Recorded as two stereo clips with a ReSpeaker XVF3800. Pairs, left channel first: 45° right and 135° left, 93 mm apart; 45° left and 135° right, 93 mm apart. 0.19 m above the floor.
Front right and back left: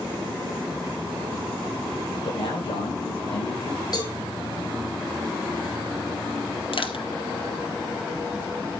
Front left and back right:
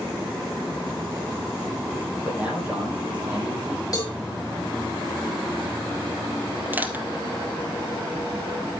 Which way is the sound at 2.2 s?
55° right.